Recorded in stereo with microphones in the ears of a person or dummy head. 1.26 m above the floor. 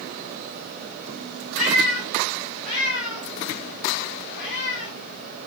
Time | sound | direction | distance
1.6 | a cat meowing | 65° left (ahead or behind) | 1.5 m